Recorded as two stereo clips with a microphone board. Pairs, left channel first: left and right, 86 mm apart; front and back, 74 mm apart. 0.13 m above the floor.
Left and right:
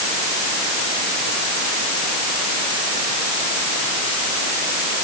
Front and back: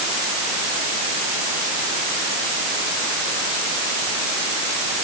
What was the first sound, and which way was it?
Only background noise.